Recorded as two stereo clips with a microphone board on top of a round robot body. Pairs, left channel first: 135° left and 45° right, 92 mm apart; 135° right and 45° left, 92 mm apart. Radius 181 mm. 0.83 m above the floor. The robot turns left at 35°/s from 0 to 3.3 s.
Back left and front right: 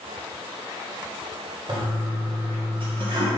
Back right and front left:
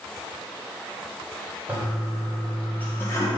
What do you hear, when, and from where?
1.7 s a toilet flushing: 25° right, 1.6 m; by 3.3 s 80° right, 1.6 m